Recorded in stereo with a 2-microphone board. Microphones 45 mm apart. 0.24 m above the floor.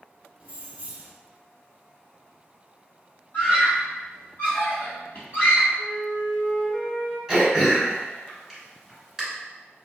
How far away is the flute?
About 1.6 m.